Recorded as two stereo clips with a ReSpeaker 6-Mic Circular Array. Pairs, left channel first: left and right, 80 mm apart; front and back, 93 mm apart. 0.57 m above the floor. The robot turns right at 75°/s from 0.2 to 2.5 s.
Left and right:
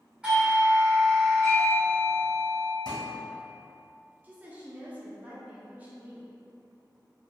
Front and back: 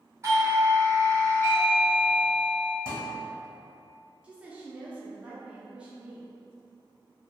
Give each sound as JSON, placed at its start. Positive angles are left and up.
{"t": 0.2, "sound": "a doorbell", "azimuth_deg": -155, "distance_m": 1.3}
{"t": 2.9, "sound": "a thud", "azimuth_deg": 80, "distance_m": 2.0}
{"t": 4.2, "sound": "a woman speaking", "azimuth_deg": -120, "distance_m": 0.6}